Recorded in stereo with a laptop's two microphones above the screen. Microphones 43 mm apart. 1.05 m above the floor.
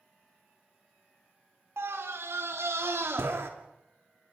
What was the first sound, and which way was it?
A scream, 75° right (ahead or behind).